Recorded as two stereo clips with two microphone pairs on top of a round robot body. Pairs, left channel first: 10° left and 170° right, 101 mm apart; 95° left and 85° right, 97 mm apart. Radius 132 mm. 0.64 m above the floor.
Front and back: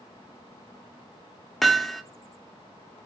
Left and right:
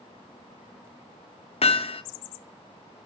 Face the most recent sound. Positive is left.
turn(degrees=95)